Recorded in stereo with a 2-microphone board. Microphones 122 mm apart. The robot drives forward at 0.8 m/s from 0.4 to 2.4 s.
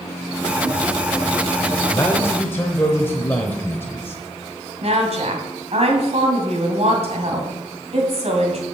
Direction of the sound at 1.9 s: 20° left (ahead or behind).